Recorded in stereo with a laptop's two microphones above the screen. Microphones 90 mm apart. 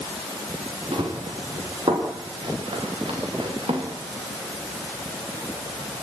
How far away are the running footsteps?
About 8.5 m.